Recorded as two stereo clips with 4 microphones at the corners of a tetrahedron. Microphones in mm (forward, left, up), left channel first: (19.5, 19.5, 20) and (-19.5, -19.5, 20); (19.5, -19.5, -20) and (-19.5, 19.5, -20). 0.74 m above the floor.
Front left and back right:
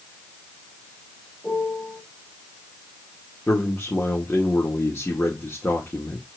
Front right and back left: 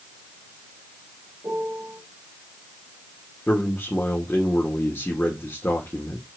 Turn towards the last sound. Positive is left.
turn(degrees=5)